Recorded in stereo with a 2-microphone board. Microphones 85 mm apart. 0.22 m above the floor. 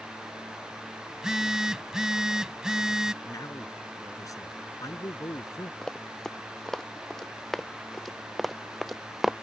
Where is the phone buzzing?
10° right (ahead or behind).